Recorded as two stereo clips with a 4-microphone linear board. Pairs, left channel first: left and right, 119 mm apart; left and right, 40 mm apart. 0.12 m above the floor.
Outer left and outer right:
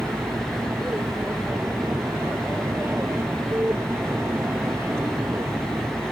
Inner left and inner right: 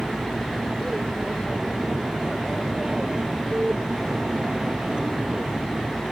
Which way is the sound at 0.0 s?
20° right (ahead or behind).